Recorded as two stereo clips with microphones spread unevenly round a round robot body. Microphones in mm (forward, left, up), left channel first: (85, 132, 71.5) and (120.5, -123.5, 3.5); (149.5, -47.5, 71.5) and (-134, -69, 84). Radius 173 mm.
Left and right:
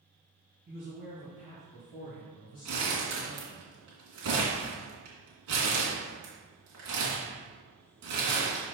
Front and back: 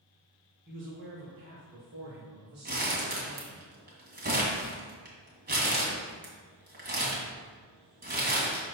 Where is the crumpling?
120° right, 2.5 m.